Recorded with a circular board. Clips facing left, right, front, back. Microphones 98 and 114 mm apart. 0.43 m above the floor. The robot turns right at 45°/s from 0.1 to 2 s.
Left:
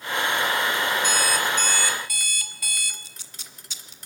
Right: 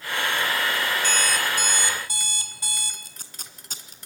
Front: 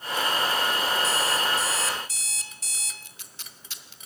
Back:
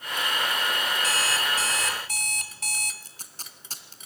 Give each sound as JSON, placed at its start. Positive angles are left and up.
{"t": 1.0, "sound": "an alarm clock", "azimuth_deg": 165, "distance_m": 1.8}
{"t": 3.0, "sound": "tape being pulled", "azimuth_deg": -130, "distance_m": 1.8}